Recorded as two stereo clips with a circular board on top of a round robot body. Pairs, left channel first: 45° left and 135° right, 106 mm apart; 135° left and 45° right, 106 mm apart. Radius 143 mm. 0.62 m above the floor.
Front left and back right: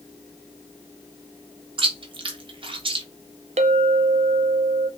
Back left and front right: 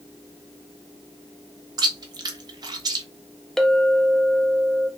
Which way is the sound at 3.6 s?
140° right.